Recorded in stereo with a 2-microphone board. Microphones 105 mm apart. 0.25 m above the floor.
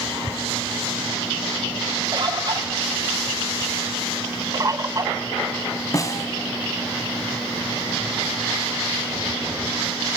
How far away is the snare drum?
About 2.0 m.